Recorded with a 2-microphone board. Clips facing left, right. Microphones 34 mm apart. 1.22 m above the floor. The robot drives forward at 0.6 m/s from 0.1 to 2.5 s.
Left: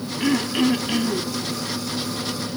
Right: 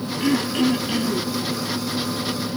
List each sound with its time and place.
0.2 s throat clearing: 15° left (ahead or behind), 1.0 m